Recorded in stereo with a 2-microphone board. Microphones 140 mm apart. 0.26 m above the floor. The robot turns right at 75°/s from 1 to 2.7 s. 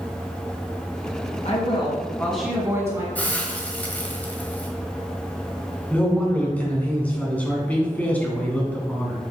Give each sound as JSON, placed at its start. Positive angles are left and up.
{"t": 1.4, "sound": "a woman speaking", "azimuth_deg": 110, "distance_m": 2.5}
{"t": 3.1, "sound": "a hiss", "side_deg": 10, "distance_m": 1.3}
{"t": 5.9, "sound": "a man speaking", "side_deg": 10, "distance_m": 2.0}